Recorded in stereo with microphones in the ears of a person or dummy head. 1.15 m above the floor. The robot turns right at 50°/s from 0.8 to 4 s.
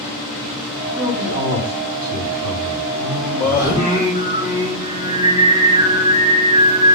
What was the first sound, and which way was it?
A man speaking, 10° right (ahead or behind).